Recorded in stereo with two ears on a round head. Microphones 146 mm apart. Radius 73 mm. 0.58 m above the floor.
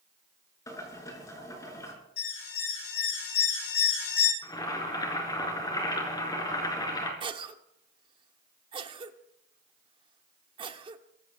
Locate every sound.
0.7 s boiling: 20° left (ahead or behind), 7.5 m
2.2 s an alarm: 75° left (ahead or behind), 8.5 m
4.4 s boiling: 25° left (ahead or behind), 5 m
7.2 s a cough: 30° right (ahead or behind), 1.5 m